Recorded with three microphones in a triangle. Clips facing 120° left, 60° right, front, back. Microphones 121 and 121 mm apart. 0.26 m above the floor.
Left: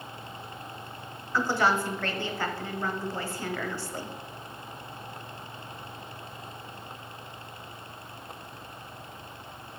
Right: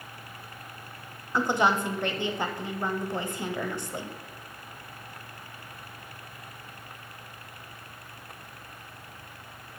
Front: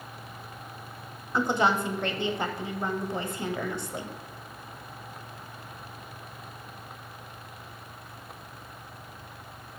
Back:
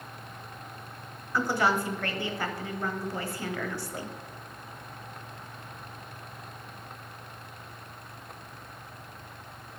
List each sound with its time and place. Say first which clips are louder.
1.3 s a woman speaking: right 1 dB, front 2 dB; 25° right, 1.2 m